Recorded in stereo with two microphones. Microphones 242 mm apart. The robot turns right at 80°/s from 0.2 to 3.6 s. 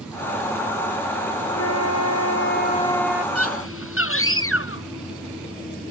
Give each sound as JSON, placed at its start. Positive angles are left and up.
{"t": 1.6, "sound": "a flute", "azimuth_deg": 55}
{"t": 3.4, "sound": "a scream", "side_deg": 75}